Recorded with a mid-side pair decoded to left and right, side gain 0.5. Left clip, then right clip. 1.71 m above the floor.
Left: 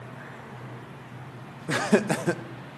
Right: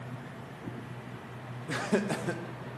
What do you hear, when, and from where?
1.7 s laughter: 45° left, 0.8 m